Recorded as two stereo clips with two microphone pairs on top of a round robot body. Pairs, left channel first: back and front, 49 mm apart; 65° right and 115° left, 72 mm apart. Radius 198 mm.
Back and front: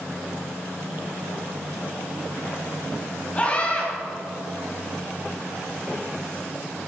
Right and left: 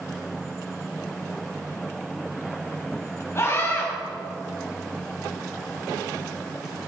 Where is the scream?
120° right, 4.5 m.